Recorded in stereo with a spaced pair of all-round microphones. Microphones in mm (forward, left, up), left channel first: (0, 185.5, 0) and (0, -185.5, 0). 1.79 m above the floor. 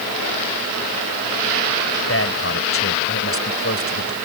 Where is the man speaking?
35° left (ahead or behind).